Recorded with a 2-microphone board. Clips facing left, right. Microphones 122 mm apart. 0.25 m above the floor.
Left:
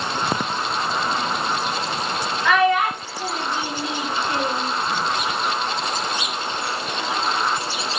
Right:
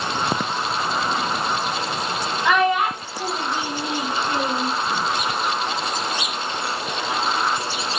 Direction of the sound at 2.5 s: 20° right (ahead or behind).